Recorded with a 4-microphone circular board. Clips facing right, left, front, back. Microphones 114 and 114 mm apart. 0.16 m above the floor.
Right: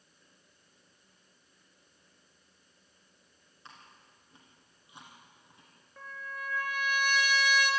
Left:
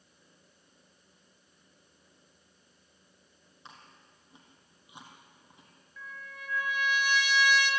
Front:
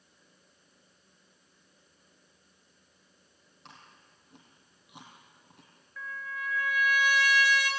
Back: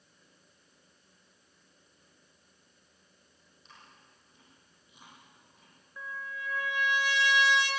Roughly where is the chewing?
Ahead.